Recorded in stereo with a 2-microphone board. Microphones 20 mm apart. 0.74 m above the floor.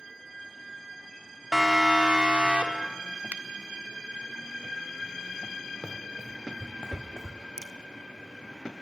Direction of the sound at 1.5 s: 25° right (ahead or behind).